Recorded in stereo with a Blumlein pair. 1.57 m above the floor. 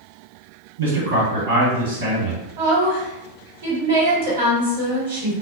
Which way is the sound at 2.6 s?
60° right.